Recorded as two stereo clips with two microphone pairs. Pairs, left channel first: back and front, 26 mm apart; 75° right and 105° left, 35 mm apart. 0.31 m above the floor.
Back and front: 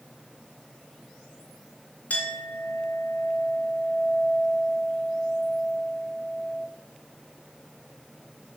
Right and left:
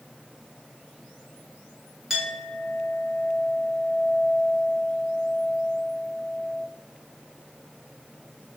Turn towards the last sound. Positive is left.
turn(degrees=180)